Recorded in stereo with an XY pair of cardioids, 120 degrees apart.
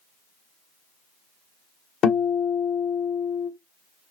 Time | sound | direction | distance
2.0 | a guitar | 65° left | 0.8 m